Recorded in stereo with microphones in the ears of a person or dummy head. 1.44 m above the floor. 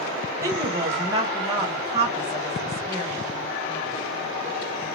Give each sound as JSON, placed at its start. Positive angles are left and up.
{"t": 0.4, "sound": "a woman speaking", "side_deg": -25, "distance_m": 1.5}